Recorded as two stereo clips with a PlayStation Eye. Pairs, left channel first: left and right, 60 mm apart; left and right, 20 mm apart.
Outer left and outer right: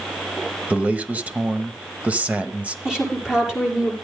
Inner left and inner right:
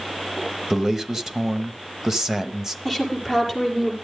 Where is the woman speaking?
10° right (ahead or behind), 7 m.